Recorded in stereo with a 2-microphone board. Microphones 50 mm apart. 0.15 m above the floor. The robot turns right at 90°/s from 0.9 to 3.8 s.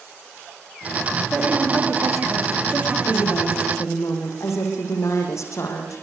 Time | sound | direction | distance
1.3 | a woman speaking | 170° right | 8 m
3.1 | a woman speaking | 40° left | 6.5 m